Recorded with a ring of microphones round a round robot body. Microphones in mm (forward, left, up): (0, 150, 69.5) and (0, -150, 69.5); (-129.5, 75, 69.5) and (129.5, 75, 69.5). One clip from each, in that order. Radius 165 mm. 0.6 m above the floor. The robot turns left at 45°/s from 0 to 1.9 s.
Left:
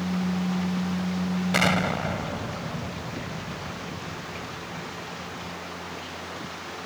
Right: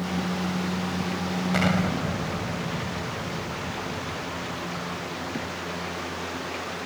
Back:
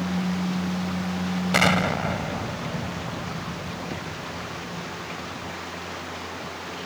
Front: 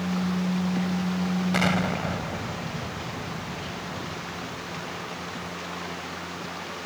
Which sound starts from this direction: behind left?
An explosion, at 1.5 s.